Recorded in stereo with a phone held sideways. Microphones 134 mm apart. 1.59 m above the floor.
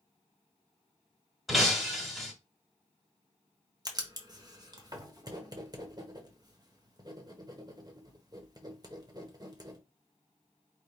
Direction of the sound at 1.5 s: Centre (ahead or behind).